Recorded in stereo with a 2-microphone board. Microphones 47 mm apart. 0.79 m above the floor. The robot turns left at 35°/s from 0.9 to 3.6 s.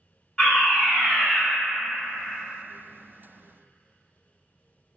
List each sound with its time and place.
0.4 s a fire alarm: 15° left (ahead or behind), 1.3 m; by 1.4 s 20° left (ahead or behind), 1.3 m